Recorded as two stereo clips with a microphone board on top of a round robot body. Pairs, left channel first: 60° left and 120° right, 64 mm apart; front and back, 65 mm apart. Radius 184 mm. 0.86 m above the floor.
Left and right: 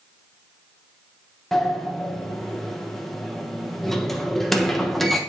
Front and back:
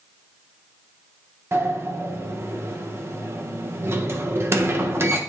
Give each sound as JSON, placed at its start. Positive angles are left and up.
{"t": 1.5, "sound": "a sliding door", "azimuth_deg": 145, "distance_m": 1.3}